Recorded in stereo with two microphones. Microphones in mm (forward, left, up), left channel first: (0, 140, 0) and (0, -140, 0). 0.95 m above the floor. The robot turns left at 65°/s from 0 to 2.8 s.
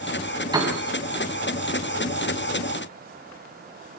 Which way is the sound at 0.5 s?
15° right (ahead or behind).